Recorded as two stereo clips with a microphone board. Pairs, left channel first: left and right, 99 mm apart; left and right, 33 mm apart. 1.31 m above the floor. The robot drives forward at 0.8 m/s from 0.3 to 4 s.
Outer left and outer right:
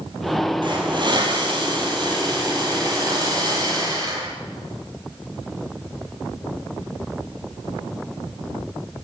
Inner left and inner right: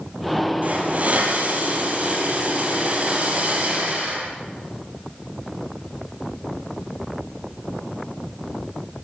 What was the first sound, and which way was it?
A hiss, 50° right (ahead or behind).